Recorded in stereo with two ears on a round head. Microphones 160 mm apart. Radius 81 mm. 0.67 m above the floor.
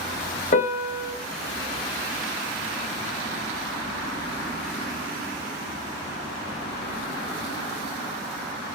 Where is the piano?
40° left (ahead or behind), 0.7 m.